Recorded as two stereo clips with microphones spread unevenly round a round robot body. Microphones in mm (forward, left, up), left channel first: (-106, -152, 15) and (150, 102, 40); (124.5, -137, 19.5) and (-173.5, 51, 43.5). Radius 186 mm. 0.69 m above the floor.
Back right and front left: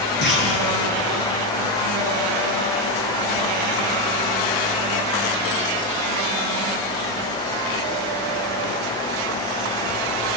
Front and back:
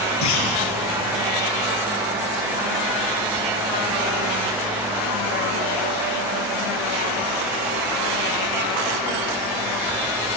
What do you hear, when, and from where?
0.2 s a clunk: 75° right, 6 m